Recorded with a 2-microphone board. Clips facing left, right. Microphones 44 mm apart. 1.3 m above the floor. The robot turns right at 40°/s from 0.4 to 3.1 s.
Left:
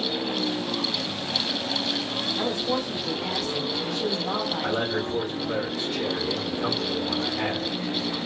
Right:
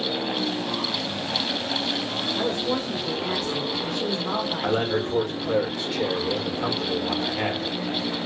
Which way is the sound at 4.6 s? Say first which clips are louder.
Right 2 dB; 55° right (ahead or behind).